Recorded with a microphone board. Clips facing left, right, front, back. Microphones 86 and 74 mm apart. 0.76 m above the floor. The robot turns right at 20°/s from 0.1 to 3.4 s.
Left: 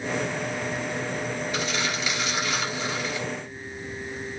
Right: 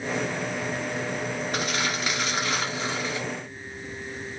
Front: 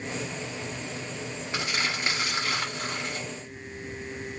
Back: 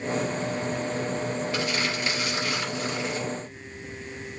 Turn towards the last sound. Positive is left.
turn(degrees=-25)